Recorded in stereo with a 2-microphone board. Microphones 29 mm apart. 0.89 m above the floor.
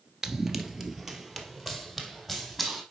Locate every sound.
0.2 s running footsteps: 20° right (ahead or behind), 0.9 m; by 2.8 s 5° right (ahead or behind), 2.5 m